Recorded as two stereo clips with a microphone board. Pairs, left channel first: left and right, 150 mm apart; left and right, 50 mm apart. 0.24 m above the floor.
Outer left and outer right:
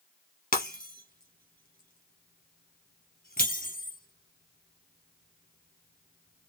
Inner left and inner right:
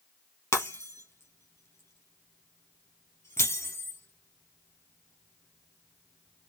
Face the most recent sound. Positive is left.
turn(degrees=75)  # may be behind; listen again after turning